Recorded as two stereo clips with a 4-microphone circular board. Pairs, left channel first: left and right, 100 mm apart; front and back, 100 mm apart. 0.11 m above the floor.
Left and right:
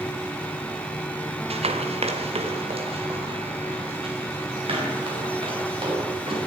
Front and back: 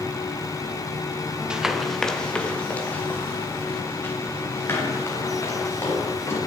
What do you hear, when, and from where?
1.5 s running footsteps: 100° right, 1.5 m; by 6.4 s 65° right, 7.5 m